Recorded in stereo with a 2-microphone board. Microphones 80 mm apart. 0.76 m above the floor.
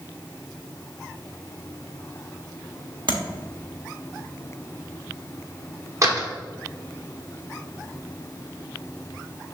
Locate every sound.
3.1 s tapping: 75° right (ahead or behind), 1.3 m
6.0 s a door slam: 40° right (ahead or behind), 1.2 m